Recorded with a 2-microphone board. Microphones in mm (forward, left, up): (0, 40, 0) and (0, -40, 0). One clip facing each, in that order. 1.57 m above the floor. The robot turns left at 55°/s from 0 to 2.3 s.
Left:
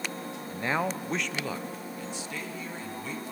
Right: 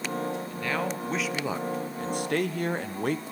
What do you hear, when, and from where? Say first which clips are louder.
0.5 s a man speaking: even; 35° left, 1.0 m; by 3.2 s 65° right, 1.0 m